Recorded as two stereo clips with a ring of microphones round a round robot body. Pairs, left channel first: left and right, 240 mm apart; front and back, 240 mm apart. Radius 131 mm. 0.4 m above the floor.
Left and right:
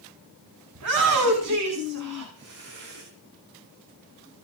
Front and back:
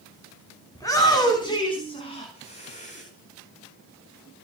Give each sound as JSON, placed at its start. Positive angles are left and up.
{"t": 0.8, "sound": "a shout", "azimuth_deg": -75, "distance_m": 4.5}